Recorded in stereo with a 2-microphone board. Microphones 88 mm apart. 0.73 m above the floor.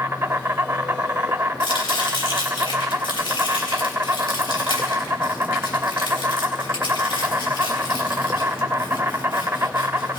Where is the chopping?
65° left (ahead or behind), 4 m.